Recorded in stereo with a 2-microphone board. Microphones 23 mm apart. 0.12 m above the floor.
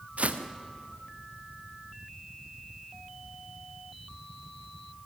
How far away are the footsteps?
About 2.5 m.